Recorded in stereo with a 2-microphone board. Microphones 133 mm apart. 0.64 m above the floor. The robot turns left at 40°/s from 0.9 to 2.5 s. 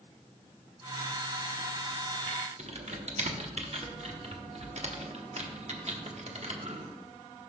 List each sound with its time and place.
2.6 s typing on a keyboard: 55° right (ahead or behind), 1.1 m